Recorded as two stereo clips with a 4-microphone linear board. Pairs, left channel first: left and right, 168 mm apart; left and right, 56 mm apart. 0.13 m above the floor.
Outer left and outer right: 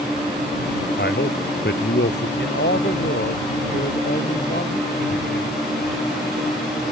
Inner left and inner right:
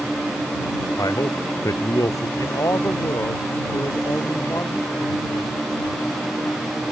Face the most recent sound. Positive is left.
turn(degrees=80)